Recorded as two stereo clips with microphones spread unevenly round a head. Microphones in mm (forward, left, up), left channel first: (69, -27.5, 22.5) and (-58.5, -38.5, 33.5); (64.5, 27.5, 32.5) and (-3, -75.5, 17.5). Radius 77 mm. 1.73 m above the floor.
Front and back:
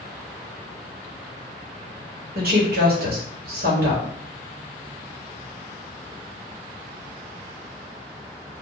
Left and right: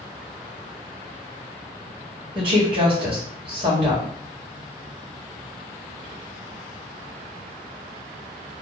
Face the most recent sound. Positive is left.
turn(degrees=180)